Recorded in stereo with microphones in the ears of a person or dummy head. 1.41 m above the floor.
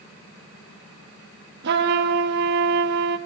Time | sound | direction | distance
1.6 | a trumpet | 60° right (ahead or behind) | 1.8 m